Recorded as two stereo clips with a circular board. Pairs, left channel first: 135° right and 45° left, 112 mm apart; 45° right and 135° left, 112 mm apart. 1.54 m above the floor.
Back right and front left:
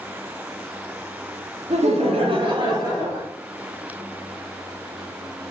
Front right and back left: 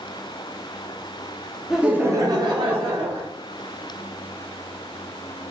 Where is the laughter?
45° left, 0.8 m; by 3.2 s 110° left, 1.4 m.